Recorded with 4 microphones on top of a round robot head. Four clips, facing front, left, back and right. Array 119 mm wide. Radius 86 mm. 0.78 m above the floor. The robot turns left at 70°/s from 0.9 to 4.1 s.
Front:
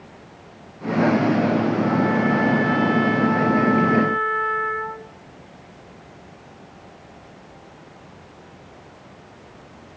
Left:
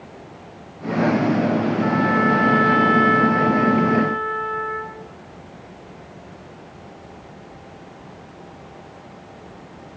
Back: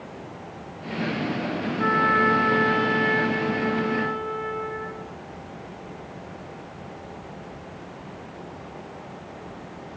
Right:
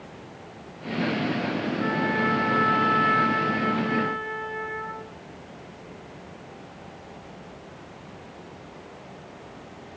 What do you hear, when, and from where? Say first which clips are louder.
1.8 s a trumpet: left 5 dB, front 1 dB; 165° left, 1.5 m; by 5.0 s straight ahead, 1.5 m